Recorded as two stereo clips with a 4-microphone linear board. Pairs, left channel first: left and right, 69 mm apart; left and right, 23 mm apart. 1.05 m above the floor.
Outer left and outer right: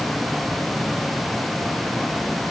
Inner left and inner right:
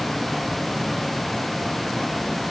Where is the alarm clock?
I don't hear an alarm clock.